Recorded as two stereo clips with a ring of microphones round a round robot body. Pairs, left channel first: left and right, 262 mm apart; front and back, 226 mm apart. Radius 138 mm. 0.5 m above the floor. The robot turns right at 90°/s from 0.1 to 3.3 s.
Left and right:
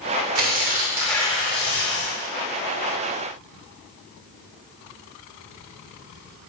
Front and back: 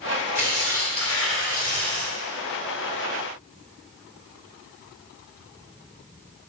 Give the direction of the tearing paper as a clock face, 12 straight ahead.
2 o'clock.